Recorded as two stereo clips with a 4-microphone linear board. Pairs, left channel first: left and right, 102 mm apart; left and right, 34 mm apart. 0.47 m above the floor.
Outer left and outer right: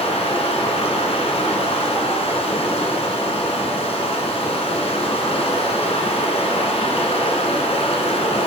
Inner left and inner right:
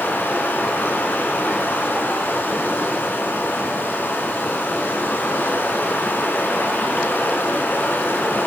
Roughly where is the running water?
Left.